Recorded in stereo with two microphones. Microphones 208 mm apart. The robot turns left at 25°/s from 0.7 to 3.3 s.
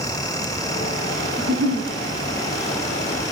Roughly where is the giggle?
Right.